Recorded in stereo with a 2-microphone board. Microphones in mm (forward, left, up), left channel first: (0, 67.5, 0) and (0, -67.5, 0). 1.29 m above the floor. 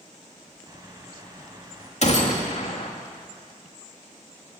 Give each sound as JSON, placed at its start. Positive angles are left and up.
{"t": 0.7, "sound": "a bird", "side_deg": -30, "distance_m": 4.0}
{"t": 2.0, "sound": "a gunshot", "side_deg": 55, "distance_m": 2.5}